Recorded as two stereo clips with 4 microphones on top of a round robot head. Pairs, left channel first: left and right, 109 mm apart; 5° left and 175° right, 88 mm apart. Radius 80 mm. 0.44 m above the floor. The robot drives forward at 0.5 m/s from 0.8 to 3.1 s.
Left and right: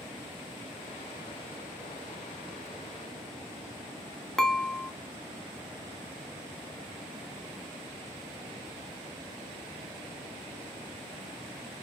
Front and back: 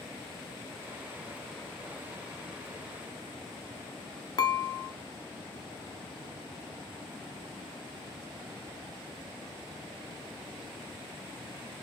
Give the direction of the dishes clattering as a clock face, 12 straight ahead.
12 o'clock.